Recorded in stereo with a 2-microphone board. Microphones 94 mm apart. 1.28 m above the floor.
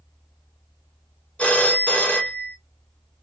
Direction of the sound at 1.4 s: 15° left (ahead or behind).